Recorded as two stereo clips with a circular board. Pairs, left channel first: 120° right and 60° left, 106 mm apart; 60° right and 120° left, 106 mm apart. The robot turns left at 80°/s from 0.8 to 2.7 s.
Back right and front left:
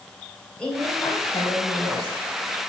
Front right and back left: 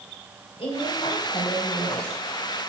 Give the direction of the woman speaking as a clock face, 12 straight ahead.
2 o'clock.